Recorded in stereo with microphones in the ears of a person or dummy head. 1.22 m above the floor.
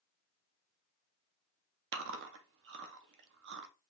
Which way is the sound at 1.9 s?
60° right (ahead or behind).